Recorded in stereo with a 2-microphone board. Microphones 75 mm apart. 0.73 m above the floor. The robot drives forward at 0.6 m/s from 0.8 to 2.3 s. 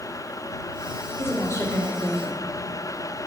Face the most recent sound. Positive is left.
turn(degrees=45)  # may be behind; listen again after turning